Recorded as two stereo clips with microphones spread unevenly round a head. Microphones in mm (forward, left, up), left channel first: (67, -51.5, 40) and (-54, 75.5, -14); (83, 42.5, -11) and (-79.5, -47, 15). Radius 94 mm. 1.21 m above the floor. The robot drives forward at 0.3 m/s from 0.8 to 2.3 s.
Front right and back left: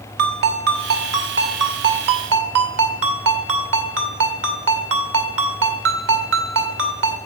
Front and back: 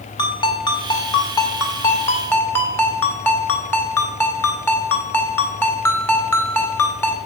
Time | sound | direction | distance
0.2 | a ringtone | 100° left | 2 m